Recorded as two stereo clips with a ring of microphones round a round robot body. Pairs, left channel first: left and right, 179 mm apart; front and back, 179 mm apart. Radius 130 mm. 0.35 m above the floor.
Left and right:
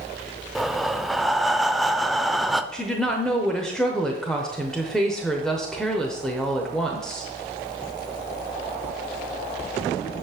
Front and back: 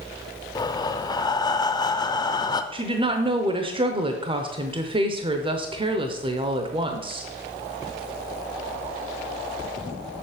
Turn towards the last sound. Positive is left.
turn(degrees=175)